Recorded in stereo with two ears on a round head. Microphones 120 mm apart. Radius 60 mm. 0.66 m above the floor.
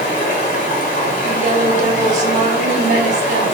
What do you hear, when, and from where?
0.0 s running water: 55° left (ahead or behind), 1.2 m
1.2 s a woman speaking: 55° right (ahead or behind), 0.9 m